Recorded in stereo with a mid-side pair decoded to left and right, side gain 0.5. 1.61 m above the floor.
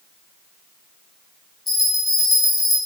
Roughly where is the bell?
Ahead.